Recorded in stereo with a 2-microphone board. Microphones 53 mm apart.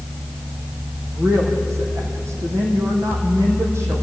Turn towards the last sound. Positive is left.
turn(degrees=-60)  # may be behind; listen again after turning